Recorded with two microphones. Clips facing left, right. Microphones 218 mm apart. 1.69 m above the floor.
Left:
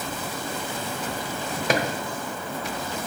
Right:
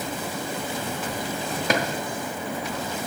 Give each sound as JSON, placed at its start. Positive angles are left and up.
{"t": 1.7, "sound": "a drawer", "side_deg": 0, "distance_m": 1.1}